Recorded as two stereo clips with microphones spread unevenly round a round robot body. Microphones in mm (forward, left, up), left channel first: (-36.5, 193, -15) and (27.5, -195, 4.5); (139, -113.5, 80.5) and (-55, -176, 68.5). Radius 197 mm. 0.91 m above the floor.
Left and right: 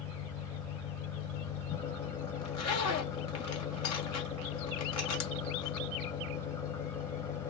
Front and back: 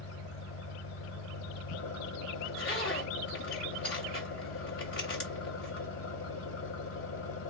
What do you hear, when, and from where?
0.0 s an engine running: 15° left, 1.1 m
2.4 s a zipper: 50° left, 1.7 m